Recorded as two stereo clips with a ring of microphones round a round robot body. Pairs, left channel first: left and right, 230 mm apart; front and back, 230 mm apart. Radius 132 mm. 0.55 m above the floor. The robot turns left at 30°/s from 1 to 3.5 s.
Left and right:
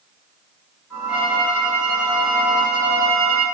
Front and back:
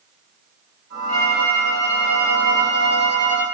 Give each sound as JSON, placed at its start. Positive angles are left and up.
{"t": 1.1, "sound": "a violin", "azimuth_deg": -5, "distance_m": 2.0}